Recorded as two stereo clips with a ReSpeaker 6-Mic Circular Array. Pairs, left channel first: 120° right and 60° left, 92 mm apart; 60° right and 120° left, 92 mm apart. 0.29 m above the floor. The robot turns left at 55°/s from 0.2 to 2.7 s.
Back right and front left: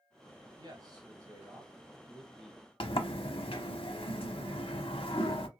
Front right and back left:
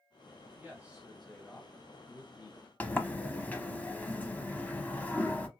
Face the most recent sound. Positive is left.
turn(degrees=-130)